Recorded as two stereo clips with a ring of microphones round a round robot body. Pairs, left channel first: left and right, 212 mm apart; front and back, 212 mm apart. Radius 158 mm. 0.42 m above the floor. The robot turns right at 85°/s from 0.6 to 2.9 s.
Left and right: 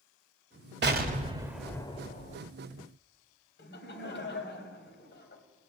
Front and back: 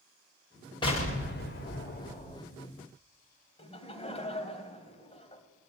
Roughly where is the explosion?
Ahead right.